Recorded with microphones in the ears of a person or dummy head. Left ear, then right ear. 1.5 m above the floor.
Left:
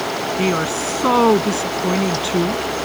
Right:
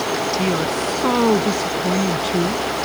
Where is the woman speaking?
30° left (ahead or behind); by 2.6 s 25° left (ahead or behind).